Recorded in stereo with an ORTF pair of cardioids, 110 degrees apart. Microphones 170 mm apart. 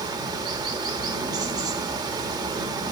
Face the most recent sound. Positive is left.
turn(degrees=-25)